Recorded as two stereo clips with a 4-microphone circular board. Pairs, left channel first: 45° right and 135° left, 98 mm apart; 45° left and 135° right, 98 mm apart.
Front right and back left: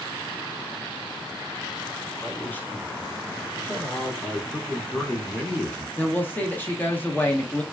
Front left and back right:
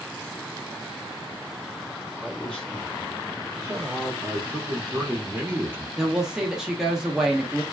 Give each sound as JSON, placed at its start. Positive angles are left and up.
{"t": 2.2, "sound": "a man speaking", "azimuth_deg": 5, "distance_m": 1.0}
{"t": 4.2, "sound": "a man speaking", "azimuth_deg": -105, "distance_m": 1.2}
{"t": 6.0, "sound": "a woman speaking", "azimuth_deg": -60, "distance_m": 0.6}